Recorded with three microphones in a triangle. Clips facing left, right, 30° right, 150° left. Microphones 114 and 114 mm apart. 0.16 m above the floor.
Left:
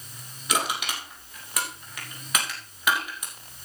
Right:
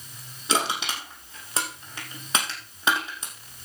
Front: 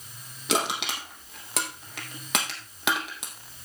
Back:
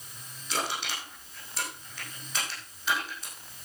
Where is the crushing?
25° right, 3.5 m.